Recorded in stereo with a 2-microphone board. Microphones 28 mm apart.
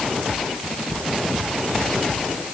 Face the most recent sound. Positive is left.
No sound to turn to.